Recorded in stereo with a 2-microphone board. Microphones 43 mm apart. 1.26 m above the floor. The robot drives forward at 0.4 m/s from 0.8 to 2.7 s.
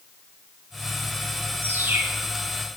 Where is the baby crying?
No baby crying in this recording.